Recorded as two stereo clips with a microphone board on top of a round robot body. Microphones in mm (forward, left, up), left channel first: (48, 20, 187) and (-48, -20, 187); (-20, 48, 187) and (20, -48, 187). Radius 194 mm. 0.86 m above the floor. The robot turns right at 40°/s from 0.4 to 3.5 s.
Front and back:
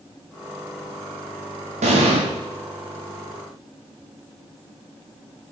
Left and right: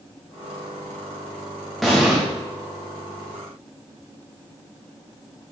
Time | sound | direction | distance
1.8 | an explosion | 160° right | 0.6 m